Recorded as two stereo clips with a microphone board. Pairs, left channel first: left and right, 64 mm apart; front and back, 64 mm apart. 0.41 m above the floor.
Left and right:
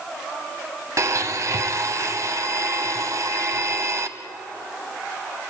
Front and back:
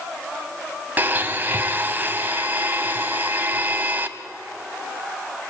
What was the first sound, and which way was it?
A blender, 120° right.